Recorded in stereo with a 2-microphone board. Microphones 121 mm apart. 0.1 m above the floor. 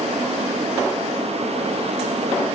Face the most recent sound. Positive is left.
No sound to turn to.